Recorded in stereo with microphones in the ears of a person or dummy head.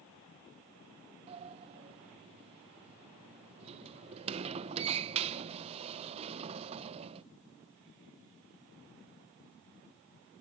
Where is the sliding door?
35° right (ahead or behind), 0.5 m.